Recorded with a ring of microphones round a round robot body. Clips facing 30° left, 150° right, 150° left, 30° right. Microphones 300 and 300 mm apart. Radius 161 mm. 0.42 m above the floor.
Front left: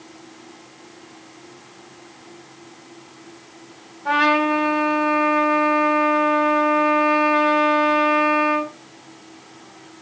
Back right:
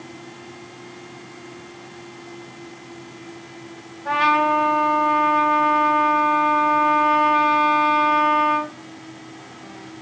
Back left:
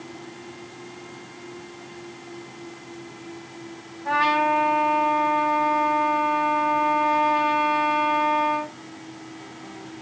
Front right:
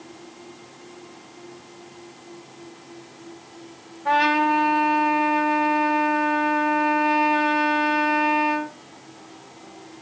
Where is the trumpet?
10° right, 2.5 m.